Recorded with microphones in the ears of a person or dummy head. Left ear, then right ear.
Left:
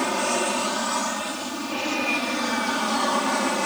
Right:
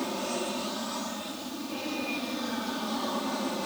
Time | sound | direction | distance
0.0 | an aircraft | 45° left (ahead or behind) | ?